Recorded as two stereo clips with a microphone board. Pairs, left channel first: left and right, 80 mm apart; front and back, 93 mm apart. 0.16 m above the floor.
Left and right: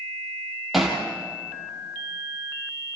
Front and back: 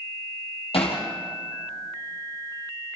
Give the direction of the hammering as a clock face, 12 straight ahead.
12 o'clock.